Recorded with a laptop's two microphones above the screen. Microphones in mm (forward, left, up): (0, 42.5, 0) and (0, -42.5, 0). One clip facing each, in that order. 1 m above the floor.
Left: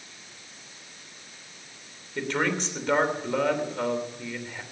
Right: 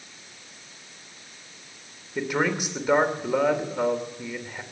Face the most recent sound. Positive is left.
turn(degrees=-10)  # may be behind; listen again after turning